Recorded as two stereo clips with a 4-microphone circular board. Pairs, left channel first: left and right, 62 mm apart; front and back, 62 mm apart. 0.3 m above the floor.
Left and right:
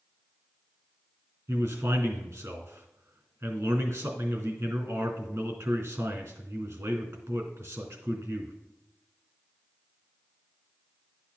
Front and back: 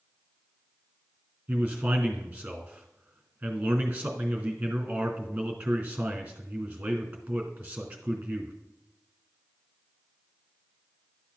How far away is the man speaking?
About 3 m.